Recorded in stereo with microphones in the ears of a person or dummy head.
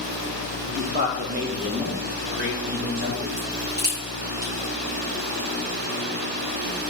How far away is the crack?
About 4.5 m.